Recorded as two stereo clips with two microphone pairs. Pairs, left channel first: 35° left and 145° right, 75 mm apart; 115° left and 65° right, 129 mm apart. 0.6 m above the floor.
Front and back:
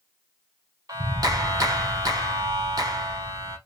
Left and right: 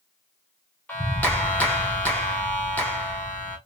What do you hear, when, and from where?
0.9 s a clap: 170° right, 1.5 m